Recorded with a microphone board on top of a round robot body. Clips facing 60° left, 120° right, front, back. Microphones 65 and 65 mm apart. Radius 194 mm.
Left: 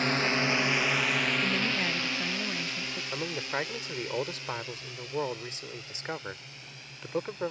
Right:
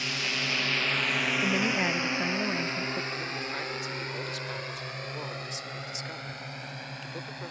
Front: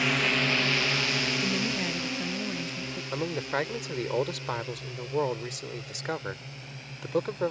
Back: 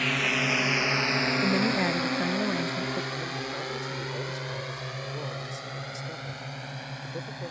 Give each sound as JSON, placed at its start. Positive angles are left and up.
{"t": 0.0, "sound": "a drone", "azimuth_deg": 85}
{"t": 1.4, "sound": "a woman speaking", "azimuth_deg": 180}
{"t": 3.1, "sound": "a man speaking", "azimuth_deg": 5}